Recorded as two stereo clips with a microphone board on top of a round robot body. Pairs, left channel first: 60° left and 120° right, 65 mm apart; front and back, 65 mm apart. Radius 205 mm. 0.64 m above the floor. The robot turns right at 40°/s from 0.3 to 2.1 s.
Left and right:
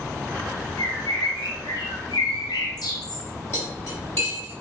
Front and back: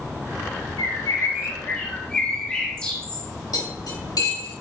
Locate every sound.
0.8 s a bird: 20° left, 1.3 m; by 3.3 s 75° left, 1.3 m
3.5 s cutlery clinking: 5° left, 3.5 m